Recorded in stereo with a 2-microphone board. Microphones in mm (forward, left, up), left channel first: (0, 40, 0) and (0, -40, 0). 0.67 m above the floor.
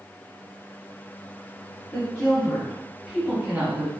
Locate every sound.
1.9 s a woman speaking: 25° left (ahead or behind), 1.8 m; by 3.9 s 30° right (ahead or behind), 1.0 m